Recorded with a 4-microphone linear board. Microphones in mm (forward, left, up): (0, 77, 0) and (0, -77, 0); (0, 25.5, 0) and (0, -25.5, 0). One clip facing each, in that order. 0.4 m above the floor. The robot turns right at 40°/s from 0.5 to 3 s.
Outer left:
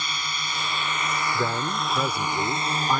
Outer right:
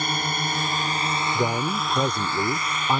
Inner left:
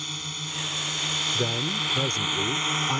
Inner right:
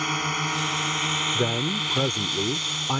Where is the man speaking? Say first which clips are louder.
Outer right 4 dB, inner right 2 dB; 15° right (ahead or behind).